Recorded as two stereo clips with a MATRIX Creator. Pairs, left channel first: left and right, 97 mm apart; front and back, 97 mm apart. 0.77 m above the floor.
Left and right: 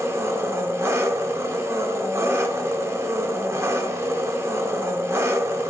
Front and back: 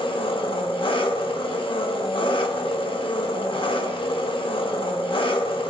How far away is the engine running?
About 0.8 m.